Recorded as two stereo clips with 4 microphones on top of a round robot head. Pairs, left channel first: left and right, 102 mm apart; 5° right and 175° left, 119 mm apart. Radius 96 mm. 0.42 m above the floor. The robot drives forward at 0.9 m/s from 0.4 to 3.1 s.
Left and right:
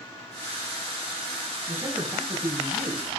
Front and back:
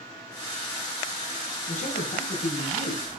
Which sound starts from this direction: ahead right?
A man speaking, at 1.7 s.